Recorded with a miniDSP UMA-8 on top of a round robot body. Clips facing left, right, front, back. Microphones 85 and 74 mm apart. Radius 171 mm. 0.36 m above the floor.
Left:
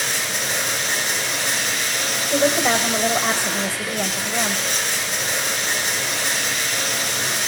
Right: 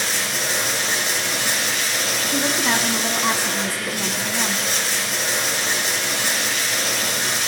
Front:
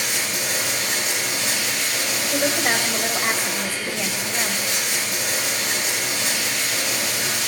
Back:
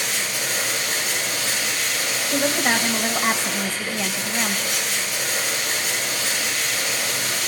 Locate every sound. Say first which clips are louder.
0.0 s running water: right 1 dB, even; 5° right, 7.5 m
2.3 s a woman speaking: left 5 dB, back 1 dB; 85° left, 2 m